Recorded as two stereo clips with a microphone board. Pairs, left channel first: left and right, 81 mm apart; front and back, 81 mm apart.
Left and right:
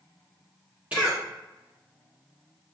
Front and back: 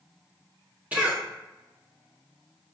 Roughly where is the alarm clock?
No alarm clock in this recording.